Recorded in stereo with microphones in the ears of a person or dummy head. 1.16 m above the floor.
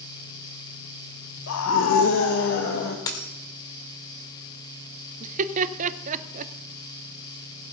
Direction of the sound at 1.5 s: 70° left (ahead or behind).